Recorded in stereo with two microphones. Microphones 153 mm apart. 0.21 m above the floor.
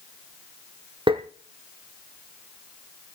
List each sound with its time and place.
1.1 s tapping: 35° right (ahead or behind), 1.5 m